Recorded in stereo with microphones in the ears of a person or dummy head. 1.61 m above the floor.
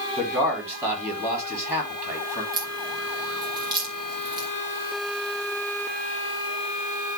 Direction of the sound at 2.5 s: 30° right (ahead or behind).